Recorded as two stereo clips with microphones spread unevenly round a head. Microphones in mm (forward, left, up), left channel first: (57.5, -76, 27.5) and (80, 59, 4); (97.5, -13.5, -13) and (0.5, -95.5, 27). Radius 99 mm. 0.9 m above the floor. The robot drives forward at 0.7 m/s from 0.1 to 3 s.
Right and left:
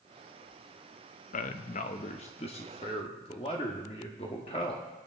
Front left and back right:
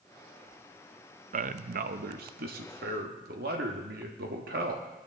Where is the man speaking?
120° right, 0.7 m; by 4.9 s 165° right, 1.6 m.